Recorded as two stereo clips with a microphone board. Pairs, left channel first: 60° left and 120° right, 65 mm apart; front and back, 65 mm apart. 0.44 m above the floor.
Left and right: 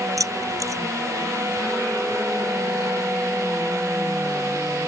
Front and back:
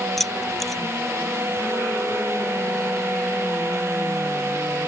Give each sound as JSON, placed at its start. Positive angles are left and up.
{"t": 0.2, "sound": "keys jangling", "azimuth_deg": -90}